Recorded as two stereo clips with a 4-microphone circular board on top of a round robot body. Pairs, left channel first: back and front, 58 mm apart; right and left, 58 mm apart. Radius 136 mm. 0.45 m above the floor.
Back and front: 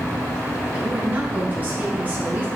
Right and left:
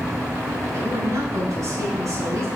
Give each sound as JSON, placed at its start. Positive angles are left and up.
{"t": 0.7, "sound": "a woman speaking", "azimuth_deg": 60, "distance_m": 4.0}